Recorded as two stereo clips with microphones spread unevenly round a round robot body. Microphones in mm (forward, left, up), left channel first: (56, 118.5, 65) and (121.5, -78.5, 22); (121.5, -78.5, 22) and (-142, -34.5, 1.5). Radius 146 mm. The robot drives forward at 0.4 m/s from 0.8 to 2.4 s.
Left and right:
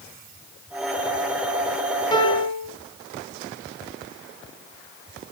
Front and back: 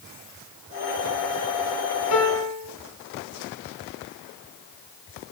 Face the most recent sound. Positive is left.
turn(degrees=40)